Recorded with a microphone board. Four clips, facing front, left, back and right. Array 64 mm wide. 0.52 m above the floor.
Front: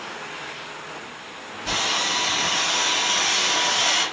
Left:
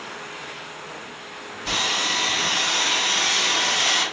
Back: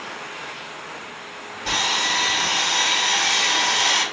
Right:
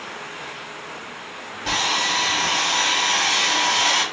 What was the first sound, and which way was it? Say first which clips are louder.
Sawing: right 3 dB, back 2 dB; 125° right.